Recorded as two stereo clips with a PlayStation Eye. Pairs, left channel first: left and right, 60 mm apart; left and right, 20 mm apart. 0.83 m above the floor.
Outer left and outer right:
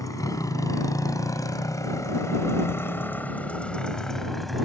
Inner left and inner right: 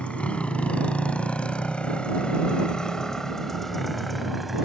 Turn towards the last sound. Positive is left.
turn(degrees=0)  # may be behind; listen again after turning